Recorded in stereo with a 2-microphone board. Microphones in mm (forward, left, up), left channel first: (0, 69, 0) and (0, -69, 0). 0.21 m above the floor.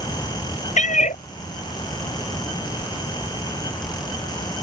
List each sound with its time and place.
0.8 s a cat meowing: 60° left (ahead or behind)